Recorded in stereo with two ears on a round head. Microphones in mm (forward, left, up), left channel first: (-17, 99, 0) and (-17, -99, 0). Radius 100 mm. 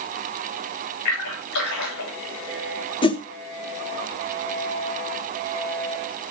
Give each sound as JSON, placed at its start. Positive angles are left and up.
{"t": 1.1, "sound": "a splash", "side_deg": 80, "distance_m": 7.5}
{"t": 3.0, "sound": "a whoosh", "side_deg": 25, "distance_m": 0.9}